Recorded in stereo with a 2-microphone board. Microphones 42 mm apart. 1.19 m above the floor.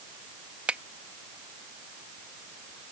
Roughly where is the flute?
No flute in this recording.